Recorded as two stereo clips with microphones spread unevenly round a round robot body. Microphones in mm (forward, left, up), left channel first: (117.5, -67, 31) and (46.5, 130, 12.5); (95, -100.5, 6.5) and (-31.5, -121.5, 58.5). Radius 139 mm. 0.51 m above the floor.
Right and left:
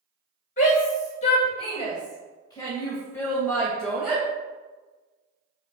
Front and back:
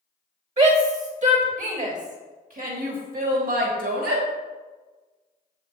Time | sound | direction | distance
0.6 | a shout | 130° right | 3.5 m